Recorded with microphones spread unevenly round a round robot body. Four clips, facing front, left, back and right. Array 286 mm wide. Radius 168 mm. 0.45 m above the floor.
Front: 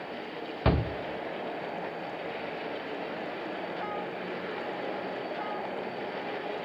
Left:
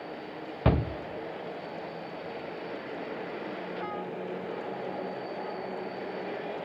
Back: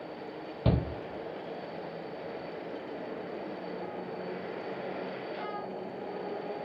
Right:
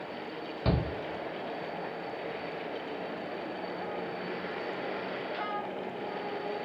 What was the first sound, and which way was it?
A shout, 30° left.